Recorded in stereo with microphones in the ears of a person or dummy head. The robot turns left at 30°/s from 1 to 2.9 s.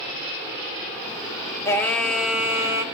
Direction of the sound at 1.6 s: 15° left.